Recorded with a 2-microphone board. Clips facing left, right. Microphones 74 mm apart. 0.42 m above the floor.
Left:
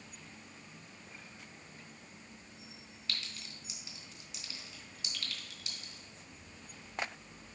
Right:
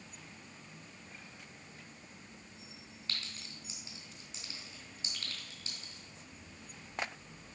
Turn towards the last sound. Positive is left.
turn(degrees=-40)  # may be behind; listen again after turning